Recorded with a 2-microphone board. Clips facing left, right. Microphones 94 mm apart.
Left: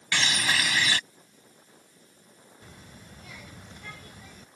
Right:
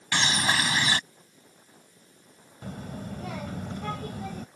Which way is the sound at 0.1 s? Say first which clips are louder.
Right 2 dB; 30° right (ahead or behind).